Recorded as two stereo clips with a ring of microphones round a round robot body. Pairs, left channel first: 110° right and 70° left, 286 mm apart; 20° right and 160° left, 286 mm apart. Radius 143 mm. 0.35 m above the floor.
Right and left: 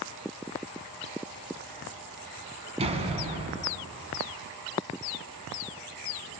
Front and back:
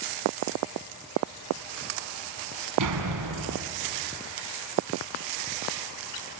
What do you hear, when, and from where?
2.8 s a door slam: 135° left, 3 m